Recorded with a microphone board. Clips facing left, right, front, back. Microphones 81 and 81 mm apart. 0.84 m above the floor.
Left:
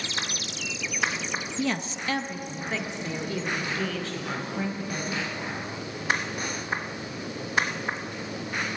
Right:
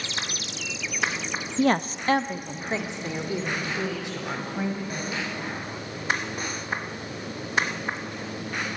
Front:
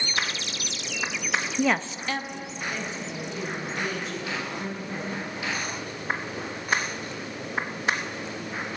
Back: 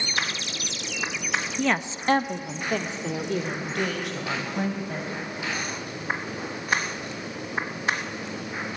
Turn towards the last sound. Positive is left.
turn(degrees=-165)